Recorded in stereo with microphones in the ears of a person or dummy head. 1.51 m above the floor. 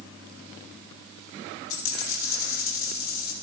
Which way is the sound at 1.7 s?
60° left (ahead or behind).